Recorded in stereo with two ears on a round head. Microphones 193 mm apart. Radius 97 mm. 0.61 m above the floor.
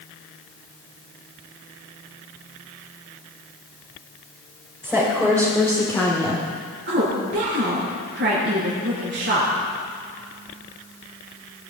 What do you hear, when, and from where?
4.8 s a woman speaking: 5° left (ahead or behind), 2.5 m; by 6.5 s 15° left (ahead or behind), 1.4 m
6.9 s a woman speaking: 50° right (ahead or behind), 6.5 m